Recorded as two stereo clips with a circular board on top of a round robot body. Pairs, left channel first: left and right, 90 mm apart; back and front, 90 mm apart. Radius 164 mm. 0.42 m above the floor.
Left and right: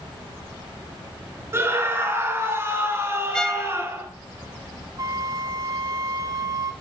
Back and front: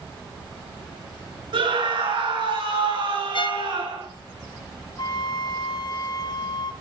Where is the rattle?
I don't hear a rattle.